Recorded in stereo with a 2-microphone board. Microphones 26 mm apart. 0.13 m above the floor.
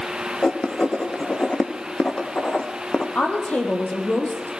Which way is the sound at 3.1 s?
70° left (ahead or behind).